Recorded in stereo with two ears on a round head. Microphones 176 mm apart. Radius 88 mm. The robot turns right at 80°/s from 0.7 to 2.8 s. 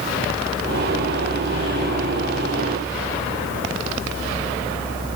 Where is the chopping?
I don't hear chopping.